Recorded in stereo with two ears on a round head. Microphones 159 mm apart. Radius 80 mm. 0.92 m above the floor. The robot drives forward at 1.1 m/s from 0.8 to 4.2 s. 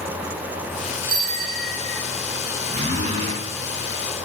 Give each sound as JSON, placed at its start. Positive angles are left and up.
{"t": 1.1, "sound": "a bicycle bell", "side_deg": -50, "distance_m": 4.5}
{"t": 2.7, "sound": "a zipper", "side_deg": -40, "distance_m": 9.0}